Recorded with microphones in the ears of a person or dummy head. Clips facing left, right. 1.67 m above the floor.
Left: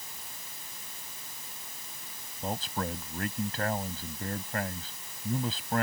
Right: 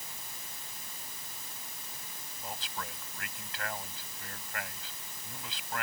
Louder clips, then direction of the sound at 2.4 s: Left 9 dB; 35° left (ahead or behind).